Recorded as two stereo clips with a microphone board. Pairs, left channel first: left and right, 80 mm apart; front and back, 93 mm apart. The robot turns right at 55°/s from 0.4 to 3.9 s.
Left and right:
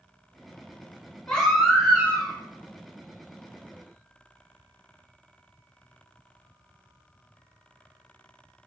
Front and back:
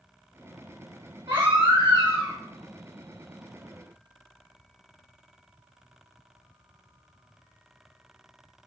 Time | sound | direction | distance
1.3 | a baby crying | 165° left | 1.8 m